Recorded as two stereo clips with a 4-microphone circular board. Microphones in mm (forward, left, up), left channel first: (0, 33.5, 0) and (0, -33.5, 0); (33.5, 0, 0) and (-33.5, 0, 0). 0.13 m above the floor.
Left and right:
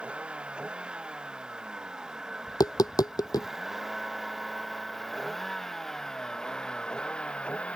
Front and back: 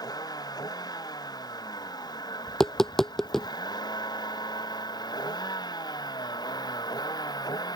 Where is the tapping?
85° left.